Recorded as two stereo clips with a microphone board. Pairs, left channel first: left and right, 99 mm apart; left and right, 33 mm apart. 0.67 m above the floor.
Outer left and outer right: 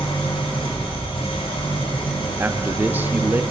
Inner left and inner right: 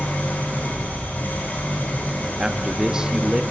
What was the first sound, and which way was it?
An engine running, 70° left (ahead or behind).